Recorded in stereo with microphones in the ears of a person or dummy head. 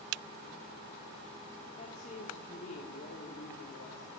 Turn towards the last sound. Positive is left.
turn(degrees=45)  # may be behind; listen again after turning